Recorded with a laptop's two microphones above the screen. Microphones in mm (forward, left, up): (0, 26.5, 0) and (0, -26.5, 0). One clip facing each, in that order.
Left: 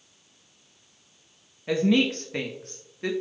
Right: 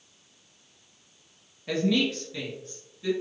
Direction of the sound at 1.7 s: 15° left (ahead or behind).